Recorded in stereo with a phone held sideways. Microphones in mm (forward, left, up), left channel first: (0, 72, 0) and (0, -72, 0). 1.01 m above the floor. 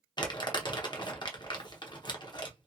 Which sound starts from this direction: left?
Crumpling, at 0.2 s.